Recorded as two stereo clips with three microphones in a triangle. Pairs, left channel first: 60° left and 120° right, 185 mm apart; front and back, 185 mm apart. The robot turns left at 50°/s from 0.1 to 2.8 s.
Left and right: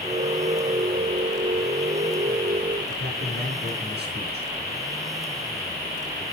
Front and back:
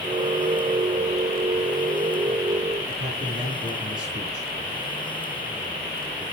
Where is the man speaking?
140° right, 4.5 m.